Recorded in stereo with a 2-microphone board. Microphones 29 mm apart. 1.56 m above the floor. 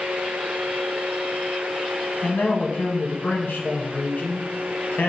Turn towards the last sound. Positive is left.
turn(degrees=65)  # may be behind; listen again after turning